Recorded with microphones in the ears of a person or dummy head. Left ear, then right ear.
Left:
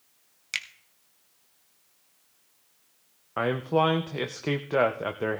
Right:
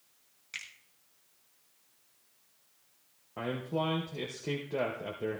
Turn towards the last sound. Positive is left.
turn(degrees=45)  # may be behind; listen again after turning